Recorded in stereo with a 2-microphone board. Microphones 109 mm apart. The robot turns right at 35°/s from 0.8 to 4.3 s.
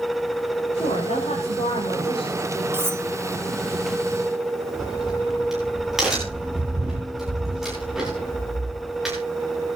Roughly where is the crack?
Centre.